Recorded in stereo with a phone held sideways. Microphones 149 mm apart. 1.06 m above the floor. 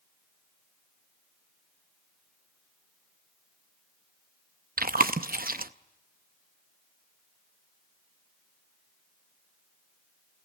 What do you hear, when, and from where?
4.8 s chewing: 75° right (ahead or behind), 0.6 m